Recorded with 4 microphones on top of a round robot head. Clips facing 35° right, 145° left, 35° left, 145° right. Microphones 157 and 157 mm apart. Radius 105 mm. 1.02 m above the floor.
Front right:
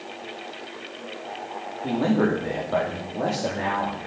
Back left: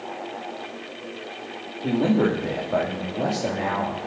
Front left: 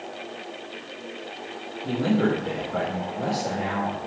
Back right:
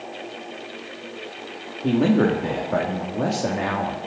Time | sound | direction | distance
1.8 | a man speaking | 135° right | 2 m